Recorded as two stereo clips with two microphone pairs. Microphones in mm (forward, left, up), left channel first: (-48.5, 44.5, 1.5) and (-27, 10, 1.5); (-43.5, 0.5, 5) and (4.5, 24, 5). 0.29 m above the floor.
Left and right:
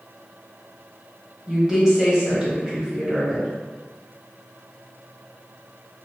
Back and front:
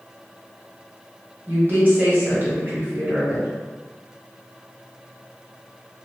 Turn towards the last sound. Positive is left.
turn(degrees=10)